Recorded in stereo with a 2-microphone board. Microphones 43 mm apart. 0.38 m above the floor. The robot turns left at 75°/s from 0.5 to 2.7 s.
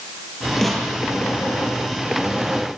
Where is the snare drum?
5° left (ahead or behind), 6 m; by 0.9 s 15° right (ahead or behind), 6 m.